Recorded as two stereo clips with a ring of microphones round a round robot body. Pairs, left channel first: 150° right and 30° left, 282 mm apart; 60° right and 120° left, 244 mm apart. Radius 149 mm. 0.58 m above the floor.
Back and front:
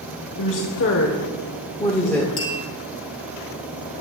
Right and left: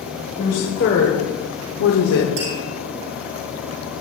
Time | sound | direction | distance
0.4 | a woman speaking | 115° right | 2 m
2.4 | tapping | 135° left | 5.5 m